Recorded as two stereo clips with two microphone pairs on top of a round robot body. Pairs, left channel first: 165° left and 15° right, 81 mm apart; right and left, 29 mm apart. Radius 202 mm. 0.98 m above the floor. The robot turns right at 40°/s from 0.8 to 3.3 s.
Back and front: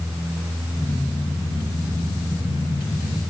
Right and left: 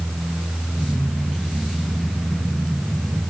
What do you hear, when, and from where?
Only background noise.